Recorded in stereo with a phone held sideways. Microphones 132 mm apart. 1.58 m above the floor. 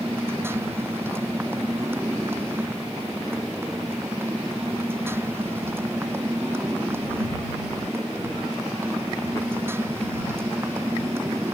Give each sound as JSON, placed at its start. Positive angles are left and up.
{"t": 0.0, "sound": "a motorcycle", "side_deg": -20}